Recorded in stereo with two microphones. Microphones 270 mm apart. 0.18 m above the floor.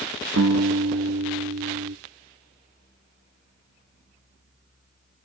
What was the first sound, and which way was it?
A guitar, 65° right (ahead or behind).